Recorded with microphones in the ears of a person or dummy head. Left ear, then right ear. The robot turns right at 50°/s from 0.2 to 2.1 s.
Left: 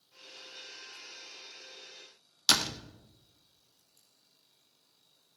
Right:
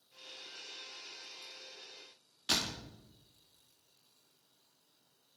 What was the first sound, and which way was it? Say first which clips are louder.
A door slam: left 7 dB; 55° left (ahead or behind).